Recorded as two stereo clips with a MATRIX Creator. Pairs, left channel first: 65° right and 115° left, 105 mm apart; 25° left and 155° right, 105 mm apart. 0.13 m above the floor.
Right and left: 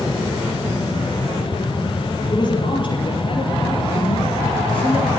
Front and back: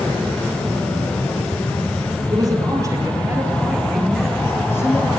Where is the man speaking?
110° right, 3 m; by 5.1 s 30° right, 1.9 m.